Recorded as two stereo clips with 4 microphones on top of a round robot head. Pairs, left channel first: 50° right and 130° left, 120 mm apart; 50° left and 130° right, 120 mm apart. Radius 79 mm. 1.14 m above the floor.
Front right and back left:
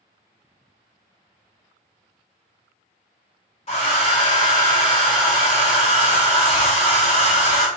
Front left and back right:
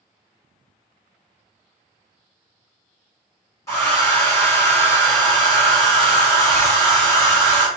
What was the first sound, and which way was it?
A hair dryer, 15° right.